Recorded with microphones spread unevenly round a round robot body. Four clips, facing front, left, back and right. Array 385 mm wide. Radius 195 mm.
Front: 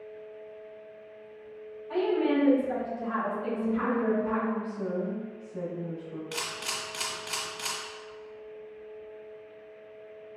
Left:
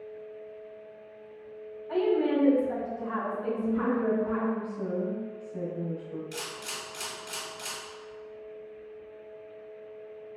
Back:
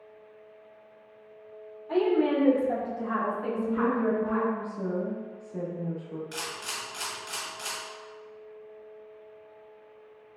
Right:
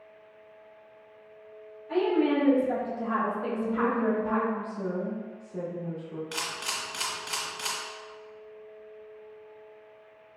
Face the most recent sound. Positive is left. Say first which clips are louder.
# right 3 dB, front 1 dB
turn(degrees=-35)